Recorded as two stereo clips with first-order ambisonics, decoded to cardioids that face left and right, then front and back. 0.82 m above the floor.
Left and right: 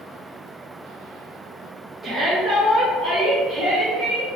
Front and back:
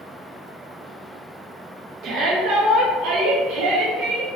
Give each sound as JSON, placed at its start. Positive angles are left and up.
{"t": 2.0, "sound": "a shout", "azimuth_deg": -165, "distance_m": 0.7}